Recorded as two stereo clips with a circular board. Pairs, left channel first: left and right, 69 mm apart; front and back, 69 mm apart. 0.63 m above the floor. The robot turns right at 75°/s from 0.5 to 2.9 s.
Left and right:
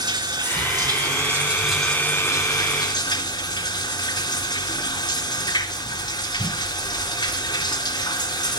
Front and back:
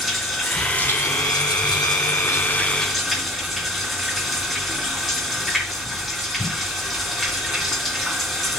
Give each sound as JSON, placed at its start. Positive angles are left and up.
{"t": 0.0, "sound": "running water", "azimuth_deg": -90, "distance_m": 2.5}